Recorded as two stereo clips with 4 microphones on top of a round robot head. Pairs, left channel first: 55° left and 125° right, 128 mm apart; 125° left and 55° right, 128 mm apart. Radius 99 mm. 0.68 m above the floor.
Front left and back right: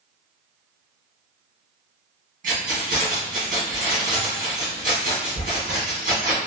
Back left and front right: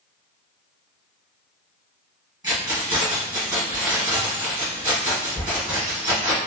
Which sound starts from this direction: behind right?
Keys jangling, at 2.4 s.